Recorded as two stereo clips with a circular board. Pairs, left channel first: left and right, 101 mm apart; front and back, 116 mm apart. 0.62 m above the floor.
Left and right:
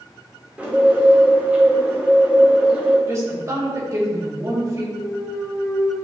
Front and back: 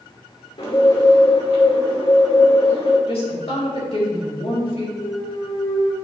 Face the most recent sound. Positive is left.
turn(degrees=30)